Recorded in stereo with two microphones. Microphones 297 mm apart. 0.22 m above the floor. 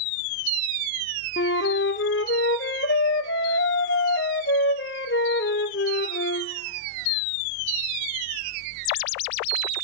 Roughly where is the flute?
Left.